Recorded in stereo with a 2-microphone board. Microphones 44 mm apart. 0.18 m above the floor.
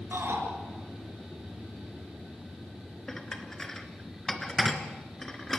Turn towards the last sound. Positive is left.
turn(degrees=10)  # may be behind; listen again after turning